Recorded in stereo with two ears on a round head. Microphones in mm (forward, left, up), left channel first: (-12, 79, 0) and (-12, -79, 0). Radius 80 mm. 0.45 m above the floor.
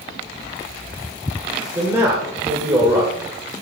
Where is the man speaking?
15° right (ahead or behind), 1.5 m.